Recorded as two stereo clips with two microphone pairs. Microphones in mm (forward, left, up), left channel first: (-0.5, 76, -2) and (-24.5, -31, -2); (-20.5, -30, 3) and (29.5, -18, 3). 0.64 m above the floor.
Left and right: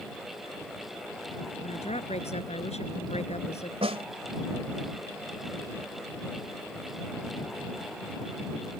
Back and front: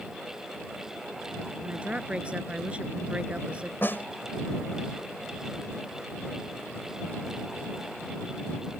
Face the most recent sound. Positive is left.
turn(degrees=-120)